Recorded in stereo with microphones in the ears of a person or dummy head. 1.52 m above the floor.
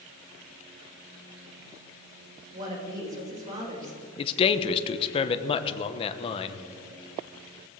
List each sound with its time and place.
2.5 s a woman speaking: 40° right (ahead or behind), 5.5 m
4.2 s a man speaking: 35° left (ahead or behind), 1.0 m